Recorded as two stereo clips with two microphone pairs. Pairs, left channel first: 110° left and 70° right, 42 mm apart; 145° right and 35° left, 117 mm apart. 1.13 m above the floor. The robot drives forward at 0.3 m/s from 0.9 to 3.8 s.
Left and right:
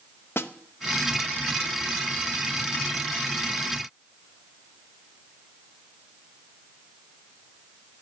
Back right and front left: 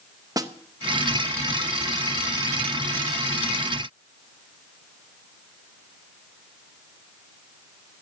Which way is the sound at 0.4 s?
95° left.